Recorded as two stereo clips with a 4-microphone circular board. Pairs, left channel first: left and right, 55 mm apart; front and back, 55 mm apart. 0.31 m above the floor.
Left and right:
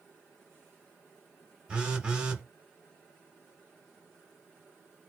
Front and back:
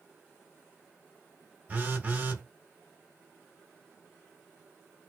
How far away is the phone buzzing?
About 0.9 m.